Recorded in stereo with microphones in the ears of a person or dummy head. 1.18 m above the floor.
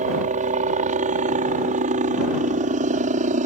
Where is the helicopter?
35° right (ahead or behind).